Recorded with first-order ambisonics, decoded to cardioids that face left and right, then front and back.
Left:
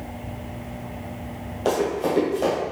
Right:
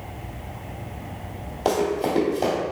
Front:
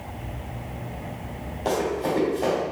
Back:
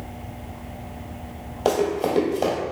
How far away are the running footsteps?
About 1.6 m.